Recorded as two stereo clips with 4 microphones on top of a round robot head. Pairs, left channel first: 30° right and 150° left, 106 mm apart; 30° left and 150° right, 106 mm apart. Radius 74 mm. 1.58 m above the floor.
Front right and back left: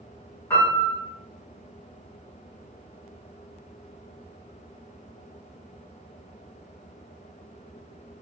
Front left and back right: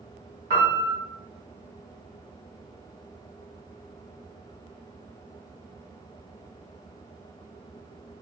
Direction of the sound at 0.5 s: 95° right.